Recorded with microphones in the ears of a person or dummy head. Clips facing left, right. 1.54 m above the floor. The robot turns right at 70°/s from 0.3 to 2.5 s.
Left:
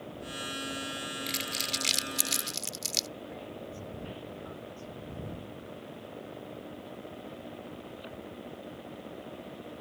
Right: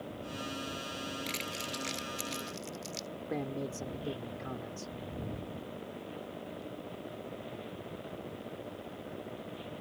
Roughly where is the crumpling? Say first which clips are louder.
Left 1 dB; centre.